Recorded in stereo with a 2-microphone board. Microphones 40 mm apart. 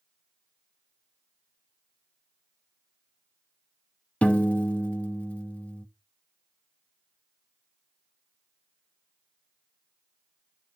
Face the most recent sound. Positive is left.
turn(degrees=35)  # may be behind; listen again after turning